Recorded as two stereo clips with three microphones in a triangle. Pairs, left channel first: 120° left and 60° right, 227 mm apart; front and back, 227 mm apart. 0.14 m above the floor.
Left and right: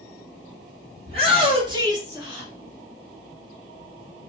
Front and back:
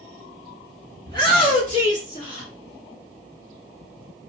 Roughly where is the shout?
Ahead right.